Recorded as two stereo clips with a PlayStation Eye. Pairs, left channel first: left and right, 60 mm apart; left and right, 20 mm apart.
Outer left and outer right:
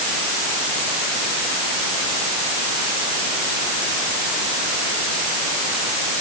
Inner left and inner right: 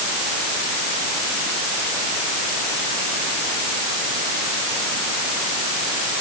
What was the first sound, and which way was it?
Only background noise.